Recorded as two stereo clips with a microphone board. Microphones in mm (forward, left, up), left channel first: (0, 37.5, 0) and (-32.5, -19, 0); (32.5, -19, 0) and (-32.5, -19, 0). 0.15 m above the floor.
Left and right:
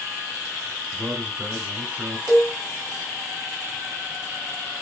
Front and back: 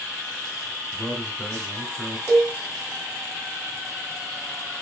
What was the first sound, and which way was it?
A man speaking, 70° right.